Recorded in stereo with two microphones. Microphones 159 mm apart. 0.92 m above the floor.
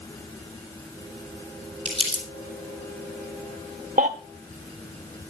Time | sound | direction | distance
1.9 | crumpling | 35° right (ahead or behind) | 4 m
4.0 | a baby crying | 55° right (ahead or behind) | 1.5 m